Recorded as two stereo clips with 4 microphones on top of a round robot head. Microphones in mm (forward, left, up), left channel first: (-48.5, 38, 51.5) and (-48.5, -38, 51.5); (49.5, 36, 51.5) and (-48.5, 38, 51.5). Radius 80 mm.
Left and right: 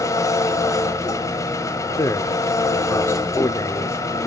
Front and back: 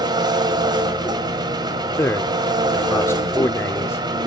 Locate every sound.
0.0 s an engine running: 135° left, 2 m
2.0 s a man speaking: 50° left, 1.3 m